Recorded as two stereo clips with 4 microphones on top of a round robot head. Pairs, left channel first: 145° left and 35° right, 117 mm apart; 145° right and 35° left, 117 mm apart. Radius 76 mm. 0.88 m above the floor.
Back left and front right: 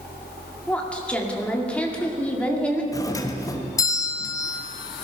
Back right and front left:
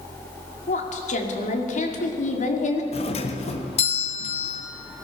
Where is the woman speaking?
135° right, 2.5 m.